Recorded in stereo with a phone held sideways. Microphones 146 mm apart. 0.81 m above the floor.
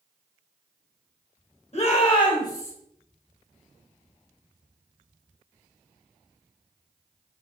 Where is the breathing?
I don't hear breathing.